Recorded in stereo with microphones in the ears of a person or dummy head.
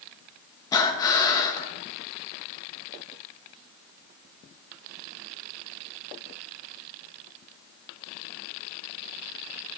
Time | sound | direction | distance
0.7 | breathing | 25° left (ahead or behind) | 1.1 m